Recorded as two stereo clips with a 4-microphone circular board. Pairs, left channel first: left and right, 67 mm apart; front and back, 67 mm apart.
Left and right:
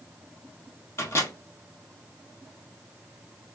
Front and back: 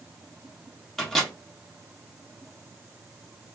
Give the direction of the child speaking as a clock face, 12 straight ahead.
No child speaking in this recording.